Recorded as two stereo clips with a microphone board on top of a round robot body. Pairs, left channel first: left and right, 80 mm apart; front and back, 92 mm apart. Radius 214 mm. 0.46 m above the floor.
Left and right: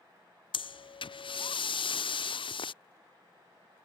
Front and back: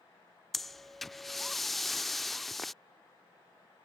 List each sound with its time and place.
0.5 s breathing: 90° left